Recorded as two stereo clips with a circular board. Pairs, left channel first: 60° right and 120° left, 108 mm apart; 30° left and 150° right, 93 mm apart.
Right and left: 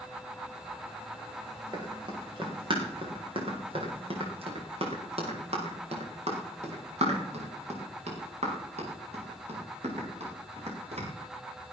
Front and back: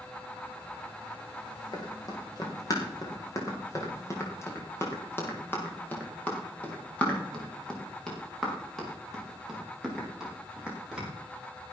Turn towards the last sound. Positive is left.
turn(degrees=130)